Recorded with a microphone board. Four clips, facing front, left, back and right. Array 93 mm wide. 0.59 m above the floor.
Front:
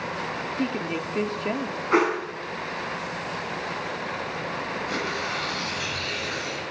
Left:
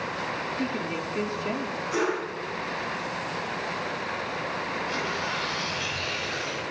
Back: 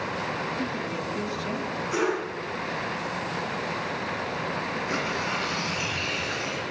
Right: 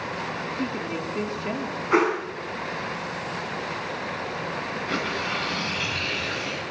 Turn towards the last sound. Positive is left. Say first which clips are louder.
# right 2 dB, back 1 dB
turn(degrees=-115)